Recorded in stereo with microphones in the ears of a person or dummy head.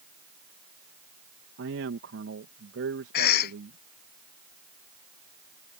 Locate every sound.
1.6 s a man speaking: 60° right (ahead or behind)
3.1 s a cough: 55° left (ahead or behind)